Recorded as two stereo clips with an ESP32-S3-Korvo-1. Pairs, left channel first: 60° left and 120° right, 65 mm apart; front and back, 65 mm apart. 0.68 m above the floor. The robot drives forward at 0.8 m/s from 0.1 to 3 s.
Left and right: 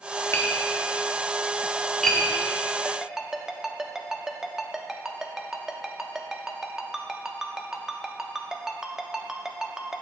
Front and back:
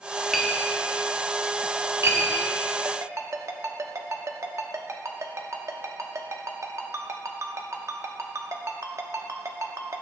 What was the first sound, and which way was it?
Tapping, 95° left.